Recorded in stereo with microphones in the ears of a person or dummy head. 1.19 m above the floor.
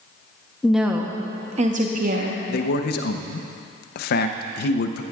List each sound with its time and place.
0.6 s a woman speaking: centre (ahead or behind), 0.8 m; by 2.4 s 60° right (ahead or behind), 1.1 m
2.5 s a man speaking: 50° left (ahead or behind), 0.7 m